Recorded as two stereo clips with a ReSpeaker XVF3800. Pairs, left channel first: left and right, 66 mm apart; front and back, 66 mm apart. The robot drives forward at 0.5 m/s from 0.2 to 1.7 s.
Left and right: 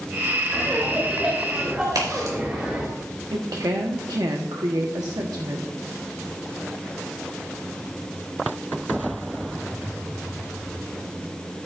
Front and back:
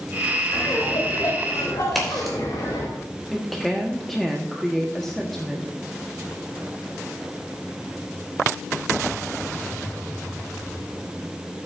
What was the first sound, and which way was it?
Laughter, 15° right.